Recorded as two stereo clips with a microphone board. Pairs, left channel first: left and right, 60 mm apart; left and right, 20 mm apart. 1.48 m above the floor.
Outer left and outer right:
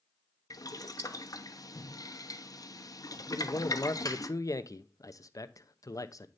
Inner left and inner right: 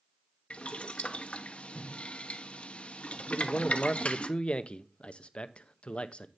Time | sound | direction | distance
0.5 | boiling | 80° left | 0.9 m
3.3 | a man speaking | 70° left (ahead or behind) | 0.8 m